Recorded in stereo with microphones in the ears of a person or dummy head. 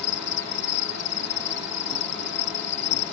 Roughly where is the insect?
Left.